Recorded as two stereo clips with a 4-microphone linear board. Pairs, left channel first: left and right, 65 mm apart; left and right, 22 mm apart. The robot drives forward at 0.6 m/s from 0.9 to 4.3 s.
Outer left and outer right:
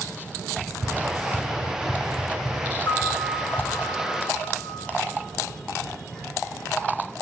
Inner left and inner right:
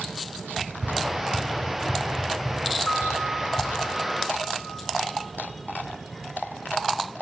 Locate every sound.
0.6 s running footsteps: 25° right (ahead or behind), 2 m; by 3.7 s 30° left (ahead or behind), 2.5 m
2.9 s a piano: 65° left (ahead or behind), 0.6 m; by 4.7 s 35° left (ahead or behind), 1.0 m